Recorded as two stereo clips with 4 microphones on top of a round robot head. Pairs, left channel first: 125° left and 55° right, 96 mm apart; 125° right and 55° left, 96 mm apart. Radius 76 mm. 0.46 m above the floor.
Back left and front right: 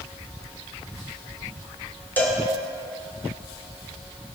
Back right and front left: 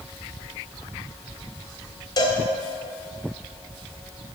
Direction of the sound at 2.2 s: 165° right.